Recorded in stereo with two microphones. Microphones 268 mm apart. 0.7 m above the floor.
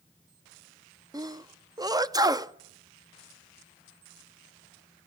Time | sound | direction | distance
1.1 | a sneeze | 15° right (ahead or behind) | 0.6 m